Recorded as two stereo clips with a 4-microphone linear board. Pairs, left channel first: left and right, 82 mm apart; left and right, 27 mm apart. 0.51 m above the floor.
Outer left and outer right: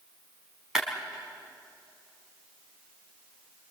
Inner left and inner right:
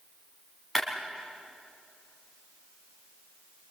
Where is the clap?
5° right (ahead or behind), 4.5 m.